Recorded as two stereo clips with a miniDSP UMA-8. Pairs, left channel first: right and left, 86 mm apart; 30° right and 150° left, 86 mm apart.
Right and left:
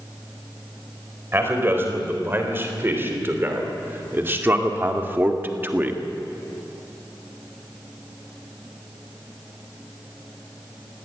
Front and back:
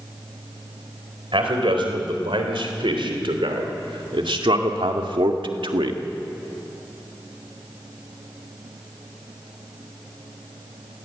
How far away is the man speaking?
About 4 m.